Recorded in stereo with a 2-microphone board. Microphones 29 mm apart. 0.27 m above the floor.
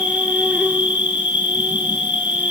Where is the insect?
65° right (ahead or behind), 2.5 m.